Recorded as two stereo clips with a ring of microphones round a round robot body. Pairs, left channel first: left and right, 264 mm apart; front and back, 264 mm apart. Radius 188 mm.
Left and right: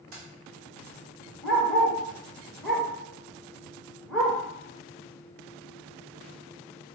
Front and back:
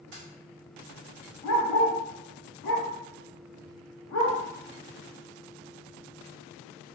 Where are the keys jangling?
130° right, 0.5 m.